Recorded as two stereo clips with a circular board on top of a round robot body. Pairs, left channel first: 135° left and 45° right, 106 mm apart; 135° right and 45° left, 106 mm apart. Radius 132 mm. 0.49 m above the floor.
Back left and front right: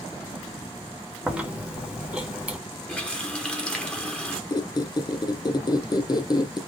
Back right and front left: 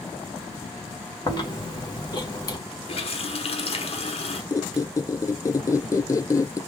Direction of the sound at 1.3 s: 120° right.